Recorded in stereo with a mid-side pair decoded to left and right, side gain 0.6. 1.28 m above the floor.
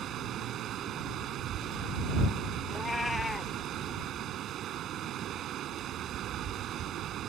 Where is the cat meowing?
15° left.